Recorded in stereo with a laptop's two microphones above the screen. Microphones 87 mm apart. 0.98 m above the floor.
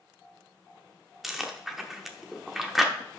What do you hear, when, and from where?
1.2 s chewing: 5° right (ahead or behind), 1.0 m